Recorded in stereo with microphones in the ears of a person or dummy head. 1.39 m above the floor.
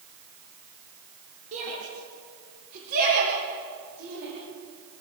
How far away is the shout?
About 4.5 m.